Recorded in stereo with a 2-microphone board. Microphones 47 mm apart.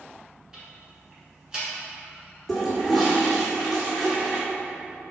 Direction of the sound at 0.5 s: 10° right (ahead or behind).